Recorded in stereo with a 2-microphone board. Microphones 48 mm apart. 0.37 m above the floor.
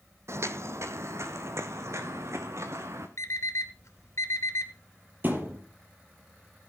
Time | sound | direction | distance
0.3 | footsteps | 70° right (ahead or behind) | 1.1 m
3.2 | an alarm clock | 75° left (ahead or behind) | 3 m
5.2 | a thud | 45° right (ahead or behind) | 5 m